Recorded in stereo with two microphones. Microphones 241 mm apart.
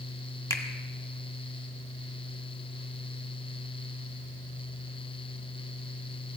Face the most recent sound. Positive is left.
turn(degrees=10)  # may be behind; listen again after turning